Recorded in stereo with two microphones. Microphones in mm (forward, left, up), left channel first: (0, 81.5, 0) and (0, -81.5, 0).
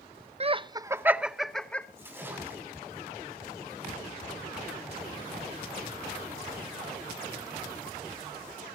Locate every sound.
0.4 s laughter: 40° right (ahead or behind), 0.7 m; by 1.9 s 10° left (ahead or behind), 1.1 m
2.0 s a splash: 10° right (ahead or behind), 7 m